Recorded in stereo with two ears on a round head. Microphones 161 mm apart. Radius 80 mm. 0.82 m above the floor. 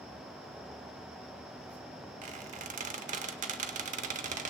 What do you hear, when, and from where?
2.2 s a squeak: 45° right (ahead or behind), 0.9 m